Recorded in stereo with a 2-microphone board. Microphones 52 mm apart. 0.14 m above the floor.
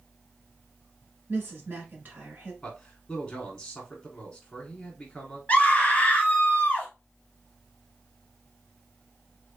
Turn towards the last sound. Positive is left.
turn(degrees=25)  # may be behind; listen again after turning